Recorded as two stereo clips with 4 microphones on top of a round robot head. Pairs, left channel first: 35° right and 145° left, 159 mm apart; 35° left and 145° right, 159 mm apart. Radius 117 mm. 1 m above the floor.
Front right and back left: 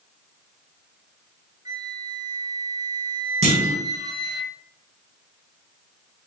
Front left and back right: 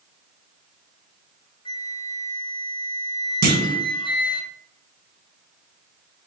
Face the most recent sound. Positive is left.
turn(degrees=-170)